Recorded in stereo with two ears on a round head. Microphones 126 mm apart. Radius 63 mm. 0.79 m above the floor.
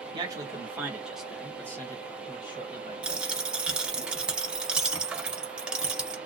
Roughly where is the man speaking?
Right.